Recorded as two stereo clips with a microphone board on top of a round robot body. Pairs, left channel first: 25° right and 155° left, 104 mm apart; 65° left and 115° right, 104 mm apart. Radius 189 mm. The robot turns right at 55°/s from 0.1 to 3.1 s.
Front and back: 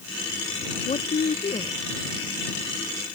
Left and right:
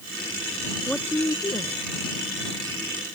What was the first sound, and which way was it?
A woman speaking, 20° right.